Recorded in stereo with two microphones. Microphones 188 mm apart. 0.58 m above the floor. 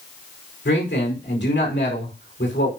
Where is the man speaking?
70° left (ahead or behind), 5 m.